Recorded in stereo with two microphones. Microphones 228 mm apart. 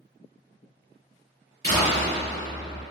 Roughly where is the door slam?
Left.